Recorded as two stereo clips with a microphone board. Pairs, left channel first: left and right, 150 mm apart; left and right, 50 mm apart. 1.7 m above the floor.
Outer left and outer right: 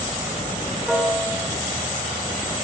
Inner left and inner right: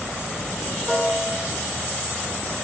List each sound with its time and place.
0.9 s a piano: centre (ahead or behind), 4.5 m